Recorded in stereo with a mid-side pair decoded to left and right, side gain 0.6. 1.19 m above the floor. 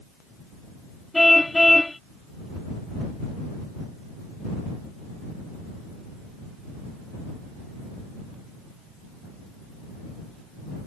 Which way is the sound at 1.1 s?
5° left.